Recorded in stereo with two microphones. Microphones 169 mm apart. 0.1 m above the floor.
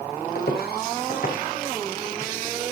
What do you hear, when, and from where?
0.3 s footsteps: 80° left, 4 m; by 2.3 s 45° left (ahead or behind), 4.5 m